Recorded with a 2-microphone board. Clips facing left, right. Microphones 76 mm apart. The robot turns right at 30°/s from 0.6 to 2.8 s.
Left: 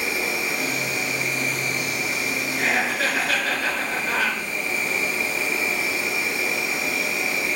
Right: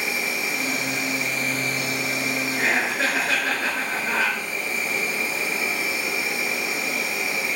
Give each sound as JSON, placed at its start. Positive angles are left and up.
{"t": 0.0, "sound": "an insect", "azimuth_deg": 125, "distance_m": 1.5}
{"t": 2.6, "sound": "laughter", "side_deg": -25, "distance_m": 1.4}